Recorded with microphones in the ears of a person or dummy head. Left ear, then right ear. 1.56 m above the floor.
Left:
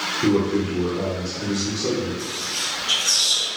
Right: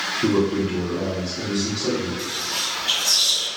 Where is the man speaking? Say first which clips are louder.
Even; centre (ahead or behind), 0.6 m.